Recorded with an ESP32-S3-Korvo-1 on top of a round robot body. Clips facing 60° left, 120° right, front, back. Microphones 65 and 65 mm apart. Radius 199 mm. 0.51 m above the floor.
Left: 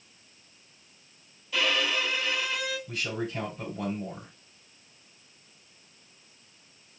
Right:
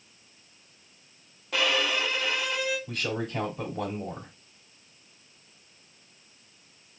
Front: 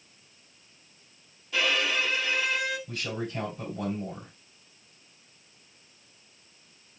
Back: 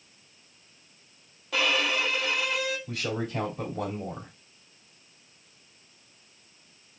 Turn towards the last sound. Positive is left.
turn(degrees=-160)